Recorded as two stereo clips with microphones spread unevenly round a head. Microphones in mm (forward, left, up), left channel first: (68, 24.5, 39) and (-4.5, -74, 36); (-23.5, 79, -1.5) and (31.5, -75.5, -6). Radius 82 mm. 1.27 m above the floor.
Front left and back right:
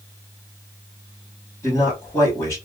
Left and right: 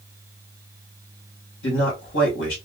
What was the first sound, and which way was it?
A man speaking, 125° left.